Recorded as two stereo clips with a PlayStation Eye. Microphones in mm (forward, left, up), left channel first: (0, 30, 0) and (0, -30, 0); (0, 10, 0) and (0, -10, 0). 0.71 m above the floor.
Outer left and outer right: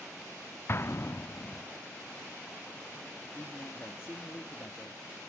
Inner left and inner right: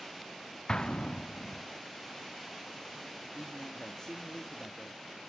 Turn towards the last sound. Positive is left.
turn(degrees=35)  # may be behind; listen again after turning